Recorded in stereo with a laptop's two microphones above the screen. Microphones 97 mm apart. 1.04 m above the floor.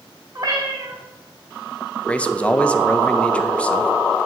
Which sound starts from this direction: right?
A cat meowing, at 0.3 s.